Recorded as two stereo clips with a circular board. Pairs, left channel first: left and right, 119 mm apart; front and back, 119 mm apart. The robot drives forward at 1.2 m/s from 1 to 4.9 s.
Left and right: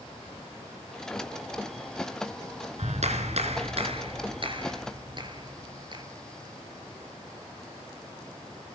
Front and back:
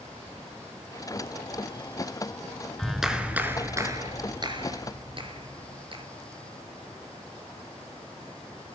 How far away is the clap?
About 2.5 m.